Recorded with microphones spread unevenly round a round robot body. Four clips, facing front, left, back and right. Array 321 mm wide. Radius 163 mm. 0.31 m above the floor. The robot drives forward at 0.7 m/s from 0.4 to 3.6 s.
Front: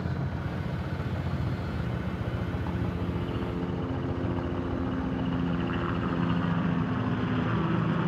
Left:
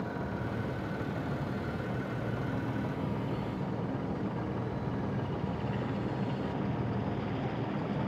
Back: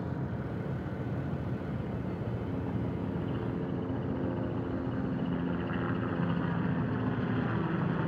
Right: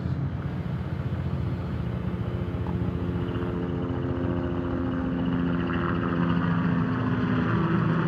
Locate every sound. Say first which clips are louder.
0.0 s a helicopter: right 2 dB, front 2 dB; 70° right